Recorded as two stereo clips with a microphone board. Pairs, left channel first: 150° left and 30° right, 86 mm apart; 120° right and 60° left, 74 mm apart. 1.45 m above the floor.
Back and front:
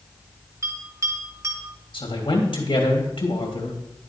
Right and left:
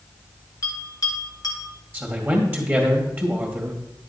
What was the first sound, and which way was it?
A bell, 85° right.